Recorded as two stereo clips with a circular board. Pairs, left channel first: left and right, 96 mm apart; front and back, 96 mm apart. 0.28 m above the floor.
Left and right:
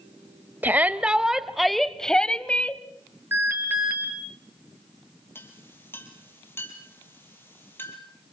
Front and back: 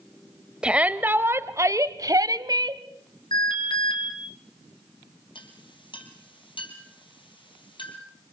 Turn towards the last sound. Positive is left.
turn(degrees=25)